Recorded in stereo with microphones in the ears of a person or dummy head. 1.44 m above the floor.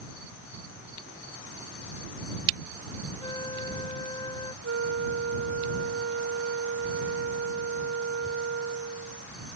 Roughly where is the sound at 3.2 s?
Left.